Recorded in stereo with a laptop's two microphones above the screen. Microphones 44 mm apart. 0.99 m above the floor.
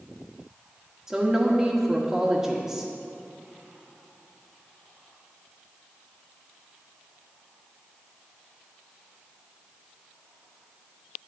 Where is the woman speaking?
10° right (ahead or behind), 1.5 m.